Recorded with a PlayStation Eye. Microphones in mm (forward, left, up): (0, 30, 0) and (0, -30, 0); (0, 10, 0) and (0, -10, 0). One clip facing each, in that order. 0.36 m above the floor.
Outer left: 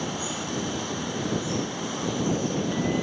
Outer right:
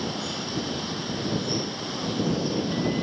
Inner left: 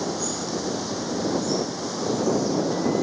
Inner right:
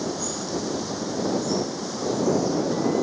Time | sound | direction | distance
0.0 | running water | 5° left (ahead or behind) | ?